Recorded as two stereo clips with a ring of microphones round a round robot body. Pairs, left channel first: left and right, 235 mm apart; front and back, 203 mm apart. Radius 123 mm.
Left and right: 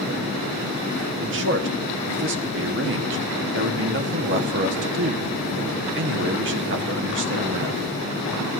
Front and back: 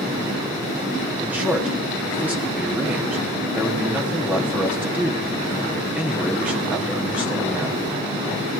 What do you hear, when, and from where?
1.2 s a man speaking: 100° right, 1.0 m